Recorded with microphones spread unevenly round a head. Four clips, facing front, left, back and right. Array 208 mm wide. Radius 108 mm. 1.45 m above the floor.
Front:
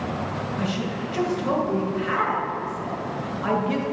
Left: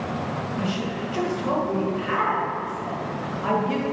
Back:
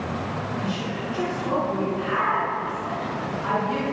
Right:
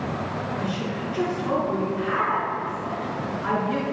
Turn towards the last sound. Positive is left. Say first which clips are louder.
# left 1 dB, front 1 dB
turn(degrees=45)